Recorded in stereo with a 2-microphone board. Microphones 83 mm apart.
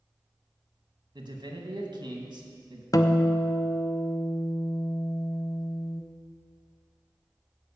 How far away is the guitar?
About 0.7 m.